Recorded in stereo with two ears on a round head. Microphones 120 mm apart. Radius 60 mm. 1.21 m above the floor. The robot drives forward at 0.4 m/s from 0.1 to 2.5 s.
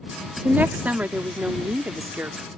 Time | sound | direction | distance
0.4 | a woman speaking | 15° right (ahead or behind) | ?